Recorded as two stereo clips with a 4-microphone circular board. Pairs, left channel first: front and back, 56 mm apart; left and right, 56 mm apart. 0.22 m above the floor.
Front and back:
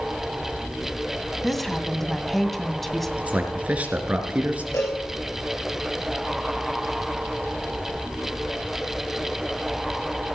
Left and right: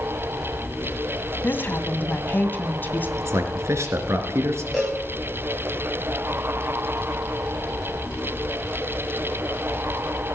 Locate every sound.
1.4 s a woman speaking: 85° left, 1.8 m
3.2 s a man speaking: 115° right, 3 m
4.7 s a cowbell: 10° left, 8.5 m